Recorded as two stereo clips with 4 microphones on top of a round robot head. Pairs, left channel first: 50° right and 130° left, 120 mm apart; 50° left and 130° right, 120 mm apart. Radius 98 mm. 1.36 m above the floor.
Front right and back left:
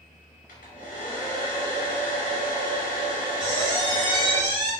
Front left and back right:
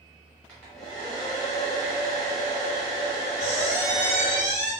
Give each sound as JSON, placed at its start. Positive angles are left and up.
{"t": 0.5, "sound": "a hair dryer", "azimuth_deg": -35, "distance_m": 0.9}
{"t": 3.4, "sound": "a squeak", "azimuth_deg": 80, "distance_m": 1.2}